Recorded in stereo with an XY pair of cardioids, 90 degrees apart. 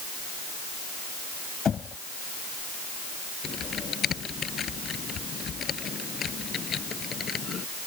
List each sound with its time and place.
1.6 s knocking: 50° left
3.4 s typing on a keyboard: 55° left